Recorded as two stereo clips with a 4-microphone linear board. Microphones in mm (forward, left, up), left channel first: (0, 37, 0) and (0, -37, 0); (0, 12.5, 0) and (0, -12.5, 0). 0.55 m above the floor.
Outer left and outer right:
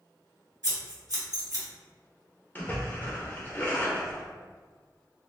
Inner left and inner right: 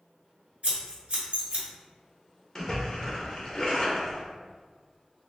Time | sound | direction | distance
0.6 | scissors | 60° right (ahead or behind) | 1.5 m
2.5 | a splash | 25° left (ahead or behind) | 0.9 m